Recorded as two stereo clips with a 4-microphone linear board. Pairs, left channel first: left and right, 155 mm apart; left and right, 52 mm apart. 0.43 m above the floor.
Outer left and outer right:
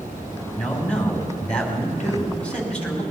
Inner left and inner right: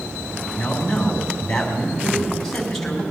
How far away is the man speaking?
About 3 m.